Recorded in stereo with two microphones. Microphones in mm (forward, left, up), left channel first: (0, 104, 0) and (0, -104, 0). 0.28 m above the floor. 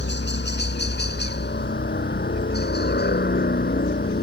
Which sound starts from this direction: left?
A helicopter, at 0.0 s.